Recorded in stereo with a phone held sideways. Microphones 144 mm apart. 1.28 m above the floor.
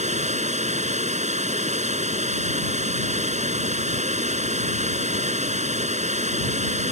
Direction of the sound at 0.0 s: 50° right (ahead or behind).